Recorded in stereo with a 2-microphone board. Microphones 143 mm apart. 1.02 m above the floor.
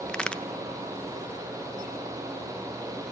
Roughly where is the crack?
Centre.